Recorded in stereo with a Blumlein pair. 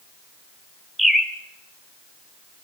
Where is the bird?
5° right, 1.8 m.